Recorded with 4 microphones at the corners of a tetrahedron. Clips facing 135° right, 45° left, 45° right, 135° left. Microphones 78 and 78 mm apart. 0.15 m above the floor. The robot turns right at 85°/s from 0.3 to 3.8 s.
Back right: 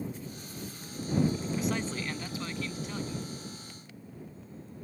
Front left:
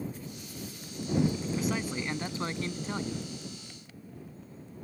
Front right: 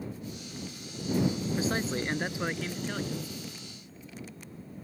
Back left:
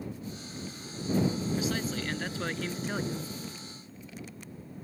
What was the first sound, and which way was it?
A man speaking, 50° right.